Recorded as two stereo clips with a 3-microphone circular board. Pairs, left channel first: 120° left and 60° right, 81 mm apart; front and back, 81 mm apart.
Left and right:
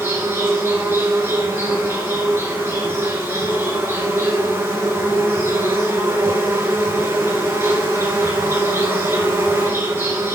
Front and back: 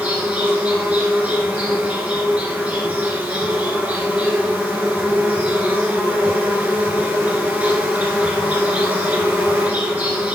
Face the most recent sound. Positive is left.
turn(degrees=-110)